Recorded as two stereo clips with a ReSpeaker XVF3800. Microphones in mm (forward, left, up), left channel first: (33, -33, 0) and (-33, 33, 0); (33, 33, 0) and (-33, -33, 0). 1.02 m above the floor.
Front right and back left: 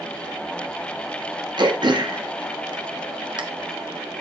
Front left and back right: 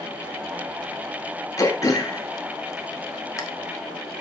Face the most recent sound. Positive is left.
turn(degrees=100)